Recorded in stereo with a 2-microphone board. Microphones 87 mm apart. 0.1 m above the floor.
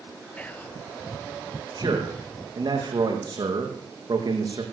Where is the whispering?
20° left (ahead or behind), 1.6 m.